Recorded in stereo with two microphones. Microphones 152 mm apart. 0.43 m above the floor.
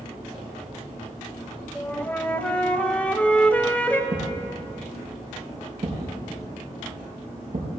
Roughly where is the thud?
Right.